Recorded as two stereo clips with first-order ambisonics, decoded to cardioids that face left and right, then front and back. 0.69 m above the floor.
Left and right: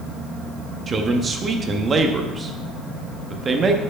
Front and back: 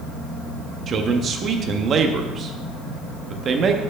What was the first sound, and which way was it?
A man speaking, 145° right.